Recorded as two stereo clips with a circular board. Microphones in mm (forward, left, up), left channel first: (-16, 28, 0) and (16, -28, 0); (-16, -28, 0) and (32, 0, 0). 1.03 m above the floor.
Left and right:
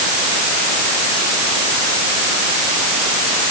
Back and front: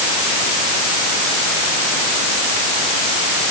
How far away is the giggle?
I don't hear a giggle.